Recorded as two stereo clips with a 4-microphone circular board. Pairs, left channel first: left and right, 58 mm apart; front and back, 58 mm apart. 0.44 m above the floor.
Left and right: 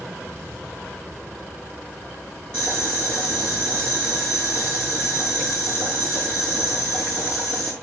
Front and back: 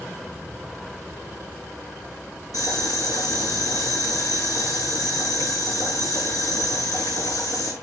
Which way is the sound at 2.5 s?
15° left.